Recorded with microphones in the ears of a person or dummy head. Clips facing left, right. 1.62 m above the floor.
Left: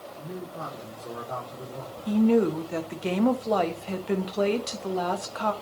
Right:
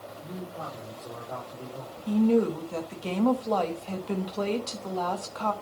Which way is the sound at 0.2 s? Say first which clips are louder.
Left 2 dB; 35° left (ahead or behind).